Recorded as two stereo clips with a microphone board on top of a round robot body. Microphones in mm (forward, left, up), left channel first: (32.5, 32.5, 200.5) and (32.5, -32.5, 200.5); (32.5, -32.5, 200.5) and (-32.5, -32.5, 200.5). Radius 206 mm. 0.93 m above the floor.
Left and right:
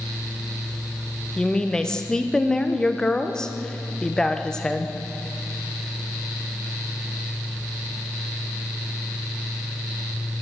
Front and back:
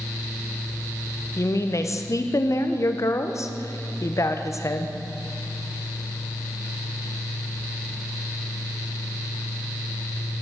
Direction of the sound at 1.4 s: 10° left.